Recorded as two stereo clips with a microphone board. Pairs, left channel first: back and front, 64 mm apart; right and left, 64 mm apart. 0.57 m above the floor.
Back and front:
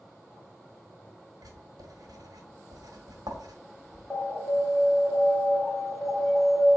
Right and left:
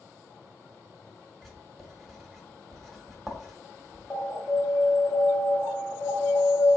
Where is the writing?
Straight ahead, 1.1 m.